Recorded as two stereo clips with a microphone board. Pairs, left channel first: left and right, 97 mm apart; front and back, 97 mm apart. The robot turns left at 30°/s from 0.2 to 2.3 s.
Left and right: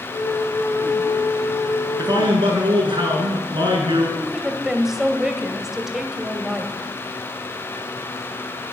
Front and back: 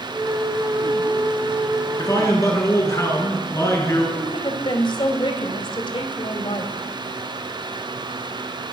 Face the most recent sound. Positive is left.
turn(degrees=-5)